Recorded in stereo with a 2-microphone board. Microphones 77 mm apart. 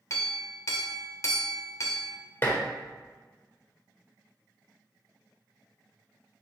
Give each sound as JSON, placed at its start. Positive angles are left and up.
{"t": 0.1, "sound": "a clink", "side_deg": 40, "distance_m": 0.5}
{"t": 2.4, "sound": "dishes clattering", "side_deg": 30, "distance_m": 0.7}